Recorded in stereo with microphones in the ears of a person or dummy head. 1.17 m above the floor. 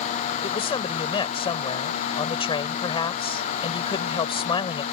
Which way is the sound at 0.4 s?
25° left (ahead or behind).